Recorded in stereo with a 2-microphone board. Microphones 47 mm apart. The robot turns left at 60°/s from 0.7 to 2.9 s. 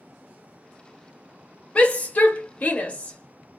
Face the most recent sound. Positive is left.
turn(degrees=30)  # may be behind; listen again after turning